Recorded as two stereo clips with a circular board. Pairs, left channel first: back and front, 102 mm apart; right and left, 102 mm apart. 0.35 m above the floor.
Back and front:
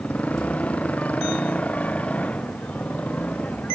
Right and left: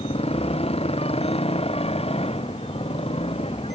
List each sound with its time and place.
0.0 s a motorcycle: 105° right